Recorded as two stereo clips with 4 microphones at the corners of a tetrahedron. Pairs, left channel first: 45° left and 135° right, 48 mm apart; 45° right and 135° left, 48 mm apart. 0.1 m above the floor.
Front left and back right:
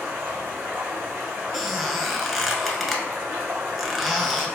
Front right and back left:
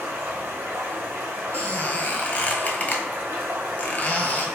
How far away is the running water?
About 1.2 m.